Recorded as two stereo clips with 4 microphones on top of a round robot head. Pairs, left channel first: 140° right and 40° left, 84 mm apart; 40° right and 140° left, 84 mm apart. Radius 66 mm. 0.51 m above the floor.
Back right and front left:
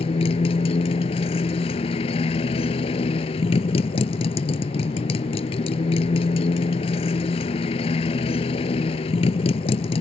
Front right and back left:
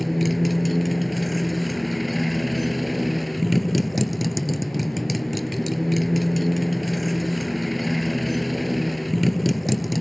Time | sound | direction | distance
0.0 | a motorcycle | 130° right | ?